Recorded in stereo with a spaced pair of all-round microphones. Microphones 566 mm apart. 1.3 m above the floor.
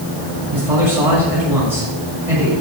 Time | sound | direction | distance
0.5 | a man speaking | 90° right | 7 m